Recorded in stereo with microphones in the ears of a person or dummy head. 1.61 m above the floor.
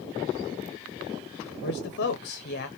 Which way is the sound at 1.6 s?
50° left (ahead or behind).